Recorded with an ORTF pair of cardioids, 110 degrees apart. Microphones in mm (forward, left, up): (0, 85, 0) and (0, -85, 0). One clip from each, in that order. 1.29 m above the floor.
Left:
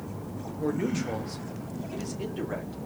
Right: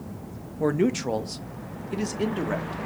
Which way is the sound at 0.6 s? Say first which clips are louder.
Right 6 dB; 45° right.